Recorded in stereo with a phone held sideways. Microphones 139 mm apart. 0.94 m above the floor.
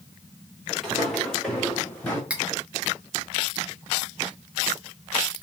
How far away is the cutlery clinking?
About 1.0 m.